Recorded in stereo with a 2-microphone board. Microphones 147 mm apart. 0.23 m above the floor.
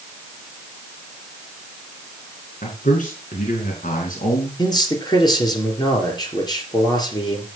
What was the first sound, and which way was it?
A man speaking, 60° left (ahead or behind).